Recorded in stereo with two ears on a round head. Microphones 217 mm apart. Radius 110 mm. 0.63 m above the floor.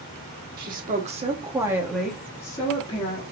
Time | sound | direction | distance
0.6 | a woman speaking | 40° right (ahead or behind) | 1.3 m